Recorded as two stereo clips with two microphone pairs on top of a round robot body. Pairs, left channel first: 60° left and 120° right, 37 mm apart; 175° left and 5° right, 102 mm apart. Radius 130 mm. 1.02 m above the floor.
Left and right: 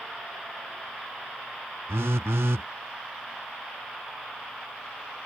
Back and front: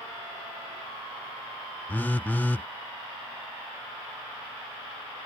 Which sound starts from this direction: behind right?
A phone buzzing, at 1.9 s.